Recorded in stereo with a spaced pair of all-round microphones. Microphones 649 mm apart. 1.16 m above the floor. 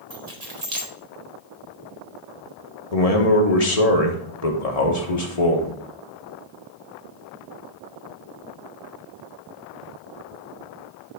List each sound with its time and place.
0.1 s keys jangling: 75° right (ahead or behind), 1.5 m
2.9 s a man speaking: 65° left (ahead or behind), 1.3 m